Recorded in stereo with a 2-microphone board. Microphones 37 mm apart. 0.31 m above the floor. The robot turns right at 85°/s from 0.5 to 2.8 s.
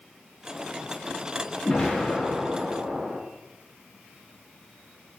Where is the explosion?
135° left, 1.0 m; by 3.2 s 130° right, 1.0 m.